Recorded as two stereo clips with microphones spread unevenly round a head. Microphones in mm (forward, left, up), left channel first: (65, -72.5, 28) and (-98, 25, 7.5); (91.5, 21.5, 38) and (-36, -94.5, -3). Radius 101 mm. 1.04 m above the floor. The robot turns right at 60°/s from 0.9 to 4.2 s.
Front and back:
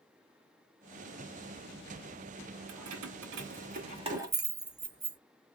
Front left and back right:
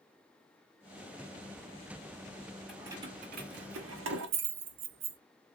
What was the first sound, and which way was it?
Keys jangling, 130° left.